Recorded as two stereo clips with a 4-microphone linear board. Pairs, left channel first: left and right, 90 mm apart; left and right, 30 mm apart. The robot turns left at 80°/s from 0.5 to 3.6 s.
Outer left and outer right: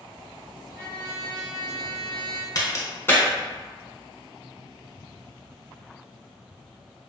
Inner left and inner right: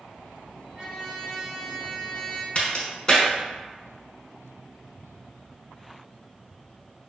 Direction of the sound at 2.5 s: 45° left (ahead or behind).